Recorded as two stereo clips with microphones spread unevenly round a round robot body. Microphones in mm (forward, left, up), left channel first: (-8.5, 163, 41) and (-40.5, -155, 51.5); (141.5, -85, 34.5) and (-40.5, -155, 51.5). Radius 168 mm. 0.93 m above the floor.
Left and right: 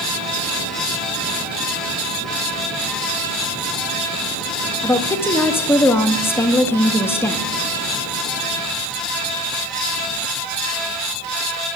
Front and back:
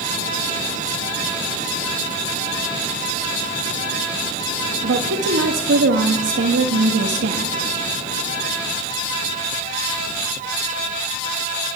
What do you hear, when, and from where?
4.8 s a woman speaking: 165° left, 1.8 m